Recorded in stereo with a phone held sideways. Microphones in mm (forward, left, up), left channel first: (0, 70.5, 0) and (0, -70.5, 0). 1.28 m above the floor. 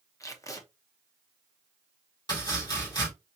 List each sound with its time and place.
0.2 s tape being pulled: 25° left (ahead or behind), 0.9 m
2.3 s chopping: 30° left (ahead or behind), 4 m